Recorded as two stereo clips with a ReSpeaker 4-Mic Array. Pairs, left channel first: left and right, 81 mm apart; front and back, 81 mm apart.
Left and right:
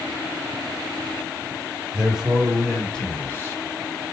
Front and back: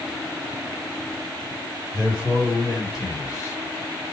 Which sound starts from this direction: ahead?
A man speaking, at 1.9 s.